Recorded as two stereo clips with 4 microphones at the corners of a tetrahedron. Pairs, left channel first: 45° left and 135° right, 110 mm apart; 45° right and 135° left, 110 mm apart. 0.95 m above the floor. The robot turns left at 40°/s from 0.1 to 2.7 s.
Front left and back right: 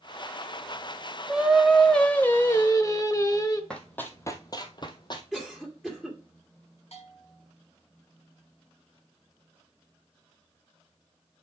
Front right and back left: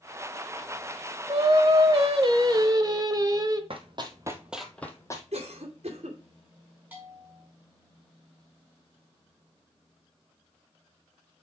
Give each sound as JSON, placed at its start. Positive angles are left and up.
{"t": 1.3, "sound": "singing", "azimuth_deg": 150, "distance_m": 1.0}
{"t": 3.7, "sound": "running footsteps", "azimuth_deg": 125, "distance_m": 1.6}
{"t": 5.3, "sound": "a cough", "azimuth_deg": 130, "distance_m": 2.0}
{"t": 6.9, "sound": "a bell", "azimuth_deg": 65, "distance_m": 4.5}